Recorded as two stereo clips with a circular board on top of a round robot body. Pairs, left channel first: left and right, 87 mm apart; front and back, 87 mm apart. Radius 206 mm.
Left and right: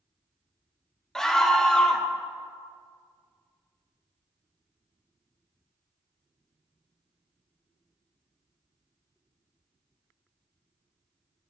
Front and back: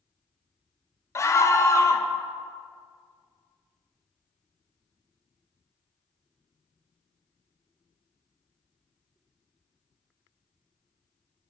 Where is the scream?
10° left, 1.0 m.